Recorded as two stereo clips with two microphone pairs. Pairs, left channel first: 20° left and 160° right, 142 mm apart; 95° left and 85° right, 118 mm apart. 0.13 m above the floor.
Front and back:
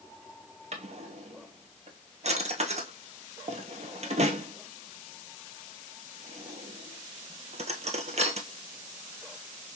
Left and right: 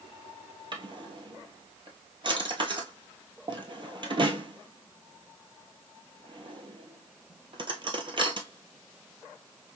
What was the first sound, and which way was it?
A drawer, 125° right.